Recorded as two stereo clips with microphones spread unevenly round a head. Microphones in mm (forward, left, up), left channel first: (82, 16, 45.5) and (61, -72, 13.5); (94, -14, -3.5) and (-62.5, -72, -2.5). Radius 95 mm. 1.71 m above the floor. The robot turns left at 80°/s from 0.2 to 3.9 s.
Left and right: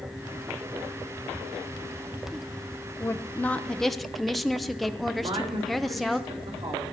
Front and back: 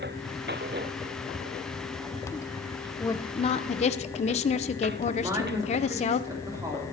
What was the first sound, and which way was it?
A woman speaking, 85° left.